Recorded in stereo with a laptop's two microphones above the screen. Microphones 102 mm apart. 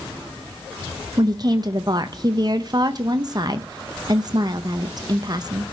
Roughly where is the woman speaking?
Right.